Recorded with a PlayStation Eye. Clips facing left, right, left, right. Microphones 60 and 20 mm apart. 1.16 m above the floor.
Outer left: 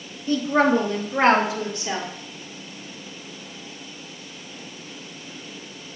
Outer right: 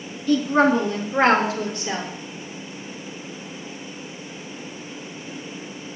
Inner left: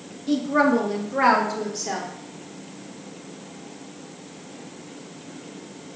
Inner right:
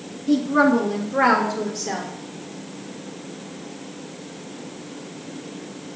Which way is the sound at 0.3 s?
30° left (ahead or behind).